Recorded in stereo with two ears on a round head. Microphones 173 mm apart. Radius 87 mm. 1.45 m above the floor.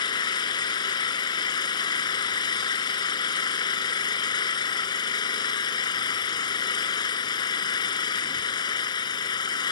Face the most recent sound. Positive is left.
turn(degrees=25)  # may be behind; listen again after turning